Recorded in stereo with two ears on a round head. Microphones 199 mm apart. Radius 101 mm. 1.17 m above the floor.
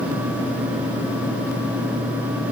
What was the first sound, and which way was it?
Only background noise.